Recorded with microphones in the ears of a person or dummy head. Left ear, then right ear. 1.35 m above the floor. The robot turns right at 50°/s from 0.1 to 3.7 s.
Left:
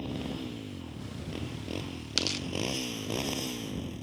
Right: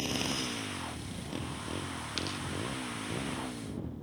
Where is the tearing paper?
20° left (ahead or behind); by 2.5 s 35° left (ahead or behind).